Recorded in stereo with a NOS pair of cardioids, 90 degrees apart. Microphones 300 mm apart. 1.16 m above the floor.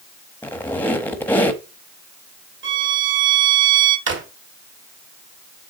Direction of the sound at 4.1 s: 40° right.